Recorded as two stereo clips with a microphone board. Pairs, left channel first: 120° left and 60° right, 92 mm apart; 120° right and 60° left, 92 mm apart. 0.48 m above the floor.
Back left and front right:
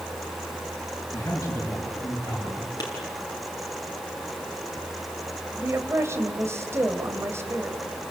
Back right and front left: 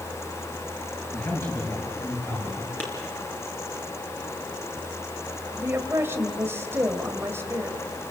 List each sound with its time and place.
1.1 s a man speaking: straight behind, 10 m; by 2.7 s 175° left, 10.5 m
2.8 s a clap: 165° left, 5 m
5.6 s a woman speaking: straight ahead, 2.5 m